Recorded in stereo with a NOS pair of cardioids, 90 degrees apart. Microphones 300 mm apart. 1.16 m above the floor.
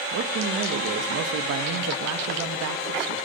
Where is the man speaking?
70° right, 1.6 m.